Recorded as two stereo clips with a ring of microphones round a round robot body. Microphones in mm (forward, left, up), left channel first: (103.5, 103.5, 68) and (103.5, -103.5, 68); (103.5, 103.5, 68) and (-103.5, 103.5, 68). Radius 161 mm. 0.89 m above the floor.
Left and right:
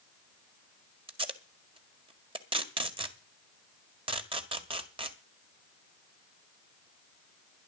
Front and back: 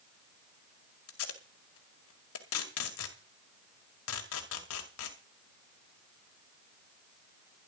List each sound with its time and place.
1.1 s tape being pulled: 25° right, 1.9 m